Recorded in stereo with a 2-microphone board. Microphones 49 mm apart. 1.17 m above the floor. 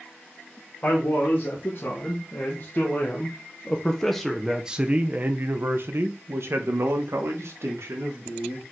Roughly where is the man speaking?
Left.